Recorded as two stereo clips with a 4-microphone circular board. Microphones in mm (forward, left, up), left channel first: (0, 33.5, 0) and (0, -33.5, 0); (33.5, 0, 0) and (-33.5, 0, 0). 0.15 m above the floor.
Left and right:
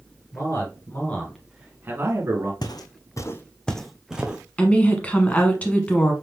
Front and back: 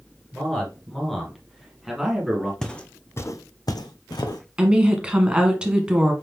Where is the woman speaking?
130° left, 1.2 m.